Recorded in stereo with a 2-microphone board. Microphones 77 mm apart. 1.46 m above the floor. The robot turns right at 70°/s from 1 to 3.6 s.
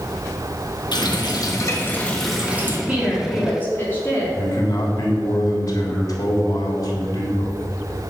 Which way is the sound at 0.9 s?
85° left.